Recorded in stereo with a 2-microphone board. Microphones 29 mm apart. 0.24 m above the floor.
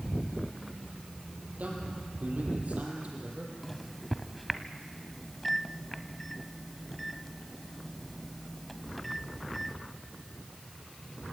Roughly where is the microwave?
Centre.